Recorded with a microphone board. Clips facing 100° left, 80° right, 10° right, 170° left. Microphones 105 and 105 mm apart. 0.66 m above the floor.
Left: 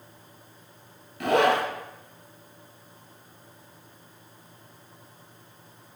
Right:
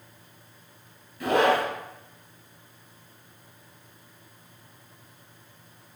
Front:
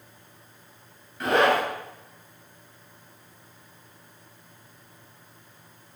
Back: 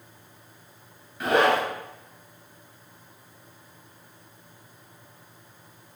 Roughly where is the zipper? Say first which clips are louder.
Even, even; left.